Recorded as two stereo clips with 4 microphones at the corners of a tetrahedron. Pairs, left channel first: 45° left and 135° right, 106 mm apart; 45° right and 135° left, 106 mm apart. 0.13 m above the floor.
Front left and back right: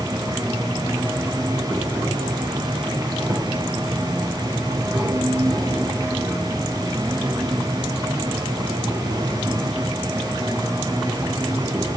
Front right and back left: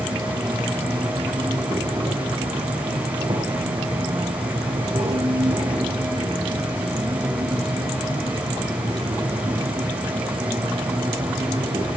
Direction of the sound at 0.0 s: 170° left.